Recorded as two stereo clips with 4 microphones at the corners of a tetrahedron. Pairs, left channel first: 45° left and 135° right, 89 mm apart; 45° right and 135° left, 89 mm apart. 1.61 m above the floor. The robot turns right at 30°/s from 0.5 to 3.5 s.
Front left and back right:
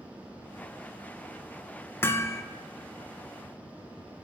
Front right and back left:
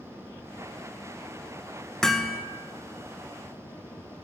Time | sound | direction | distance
2.0 | hammering | 30° left | 1.1 m